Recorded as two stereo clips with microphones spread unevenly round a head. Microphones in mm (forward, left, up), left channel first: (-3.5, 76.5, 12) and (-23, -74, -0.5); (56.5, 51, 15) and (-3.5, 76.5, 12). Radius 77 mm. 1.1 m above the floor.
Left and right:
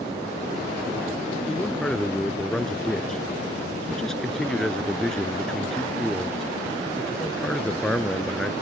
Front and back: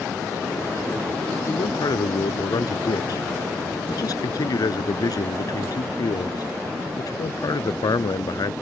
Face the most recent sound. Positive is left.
turn(degrees=-5)